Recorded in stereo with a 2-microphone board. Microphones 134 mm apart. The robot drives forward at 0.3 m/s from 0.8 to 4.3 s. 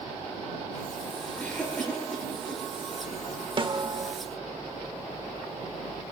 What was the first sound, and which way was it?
A cough, 10° left (ahead or behind).